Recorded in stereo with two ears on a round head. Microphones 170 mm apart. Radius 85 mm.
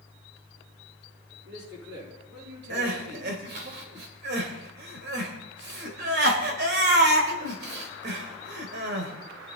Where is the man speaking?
60° right (ahead or behind), 9.5 m; by 3.7 s 55° right (ahead or behind), 10.5 m.